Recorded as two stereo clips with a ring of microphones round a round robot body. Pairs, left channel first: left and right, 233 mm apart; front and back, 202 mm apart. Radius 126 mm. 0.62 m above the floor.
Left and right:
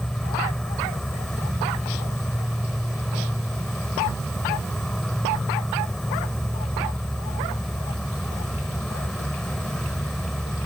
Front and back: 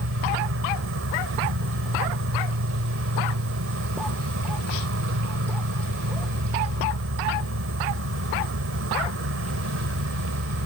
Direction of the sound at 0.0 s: Straight behind.